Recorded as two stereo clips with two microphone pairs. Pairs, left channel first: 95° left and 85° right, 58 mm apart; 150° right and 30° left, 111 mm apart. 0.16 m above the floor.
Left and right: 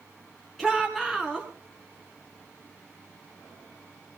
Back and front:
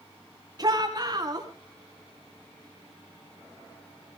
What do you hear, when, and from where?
0.6 s a shout: 15° left, 1.9 m